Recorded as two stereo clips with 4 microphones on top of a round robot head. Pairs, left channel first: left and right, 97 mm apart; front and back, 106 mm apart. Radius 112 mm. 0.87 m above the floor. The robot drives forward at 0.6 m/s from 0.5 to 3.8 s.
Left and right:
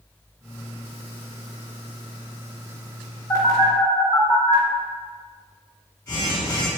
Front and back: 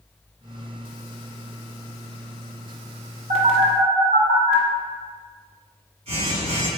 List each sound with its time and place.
3.3 s a phone buzzing: 165° left, 1.9 m